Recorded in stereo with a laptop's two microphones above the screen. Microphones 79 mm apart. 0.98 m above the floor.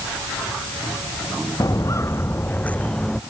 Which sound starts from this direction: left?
Footsteps, at 1.6 s.